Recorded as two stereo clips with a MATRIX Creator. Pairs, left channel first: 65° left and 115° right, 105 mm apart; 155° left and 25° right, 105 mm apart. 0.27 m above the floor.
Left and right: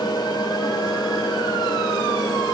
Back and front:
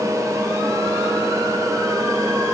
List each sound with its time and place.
Only background noise.